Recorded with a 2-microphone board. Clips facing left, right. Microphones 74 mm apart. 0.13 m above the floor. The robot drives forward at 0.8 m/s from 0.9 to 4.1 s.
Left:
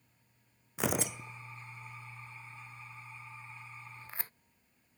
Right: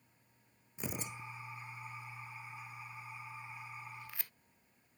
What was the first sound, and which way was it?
Tearing paper, 85° left.